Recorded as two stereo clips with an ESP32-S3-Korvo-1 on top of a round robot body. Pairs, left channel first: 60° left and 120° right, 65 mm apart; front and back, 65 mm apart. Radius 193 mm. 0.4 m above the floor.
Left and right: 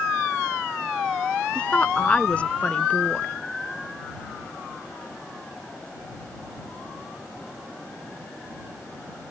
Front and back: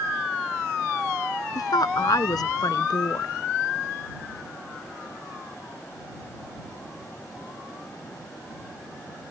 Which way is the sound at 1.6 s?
10° right.